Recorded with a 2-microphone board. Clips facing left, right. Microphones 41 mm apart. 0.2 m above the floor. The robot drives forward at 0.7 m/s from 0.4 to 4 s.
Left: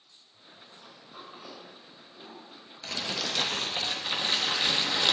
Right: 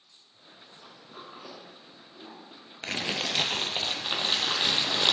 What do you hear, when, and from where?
0.7 s a sliding door: 55° right (ahead or behind), 4.5 m; by 2.7 s 45° right (ahead or behind), 5.5 m
2.8 s crumpling: 60° right (ahead or behind), 0.6 m; by 5.1 s 25° right (ahead or behind), 1.3 m